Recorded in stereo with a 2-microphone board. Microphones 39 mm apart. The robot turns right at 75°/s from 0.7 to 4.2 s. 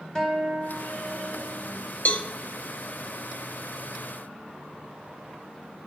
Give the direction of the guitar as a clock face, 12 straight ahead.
7 o'clock.